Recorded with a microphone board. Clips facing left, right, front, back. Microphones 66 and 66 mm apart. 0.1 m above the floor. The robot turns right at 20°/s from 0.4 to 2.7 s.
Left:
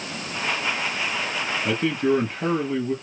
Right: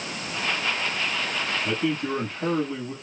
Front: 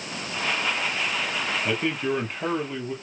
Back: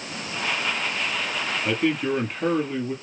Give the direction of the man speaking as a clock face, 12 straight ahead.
9 o'clock.